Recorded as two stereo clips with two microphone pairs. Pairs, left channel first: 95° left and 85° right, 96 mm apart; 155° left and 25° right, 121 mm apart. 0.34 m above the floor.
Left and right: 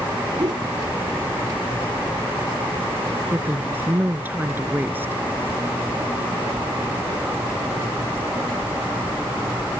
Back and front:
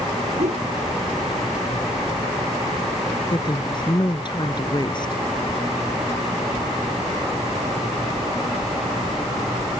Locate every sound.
0.4 s a whoosh: 45° right
3.3 s a woman speaking: 155° right